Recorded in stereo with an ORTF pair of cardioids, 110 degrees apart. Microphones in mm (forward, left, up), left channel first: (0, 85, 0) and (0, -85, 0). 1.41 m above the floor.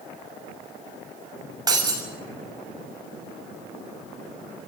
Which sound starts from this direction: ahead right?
Breaking glass, at 1.7 s.